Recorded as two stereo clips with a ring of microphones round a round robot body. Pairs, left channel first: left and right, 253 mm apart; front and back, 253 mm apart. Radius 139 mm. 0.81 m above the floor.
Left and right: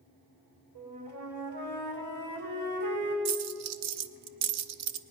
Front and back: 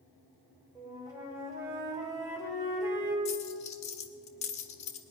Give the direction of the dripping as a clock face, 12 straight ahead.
No dripping in this recording.